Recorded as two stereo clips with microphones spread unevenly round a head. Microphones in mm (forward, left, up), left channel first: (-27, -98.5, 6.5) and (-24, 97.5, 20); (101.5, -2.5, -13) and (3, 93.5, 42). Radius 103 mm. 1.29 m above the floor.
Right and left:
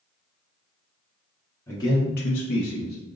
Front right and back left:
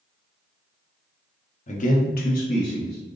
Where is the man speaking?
15° right, 1.0 m; by 3.0 s 125° right, 1.0 m.